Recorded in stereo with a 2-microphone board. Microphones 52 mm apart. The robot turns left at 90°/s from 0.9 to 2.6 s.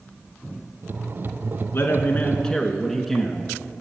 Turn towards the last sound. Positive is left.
turn(degrees=5)